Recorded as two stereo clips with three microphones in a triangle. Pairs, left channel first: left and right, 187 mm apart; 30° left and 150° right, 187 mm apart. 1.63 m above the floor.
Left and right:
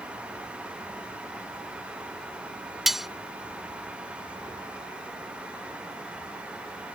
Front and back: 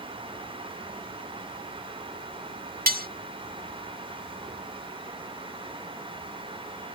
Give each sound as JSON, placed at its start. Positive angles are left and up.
{"t": 2.9, "sound": "cutlery clinking", "azimuth_deg": 180}